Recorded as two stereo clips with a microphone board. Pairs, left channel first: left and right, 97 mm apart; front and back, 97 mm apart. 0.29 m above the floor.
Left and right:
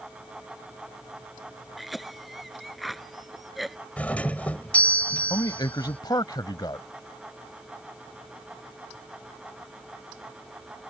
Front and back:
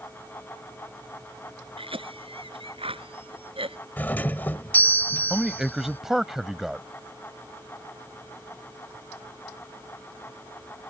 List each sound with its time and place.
1.8 s a cough: straight behind
4.0 s a doorbell: 40° left
5.3 s a man speaking: 95° left